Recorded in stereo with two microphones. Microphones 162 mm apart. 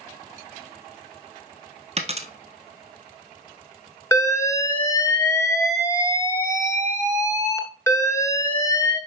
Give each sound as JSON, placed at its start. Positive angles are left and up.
{"t": 2.0, "sound": "a dropped coin", "side_deg": -40, "distance_m": 1.1}
{"t": 4.1, "sound": "an alarm", "side_deg": 20, "distance_m": 1.4}